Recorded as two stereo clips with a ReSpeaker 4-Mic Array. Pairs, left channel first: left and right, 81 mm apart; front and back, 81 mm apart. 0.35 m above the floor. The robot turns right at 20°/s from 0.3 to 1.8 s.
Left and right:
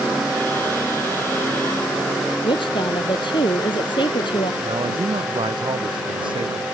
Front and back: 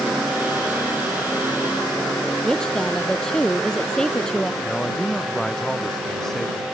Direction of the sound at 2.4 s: 80° left.